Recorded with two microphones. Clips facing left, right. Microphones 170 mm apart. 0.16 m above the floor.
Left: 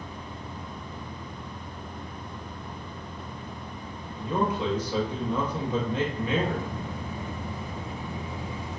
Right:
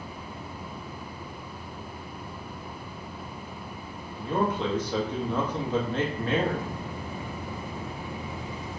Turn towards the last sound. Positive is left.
turn(degrees=10)  # may be behind; listen again after turning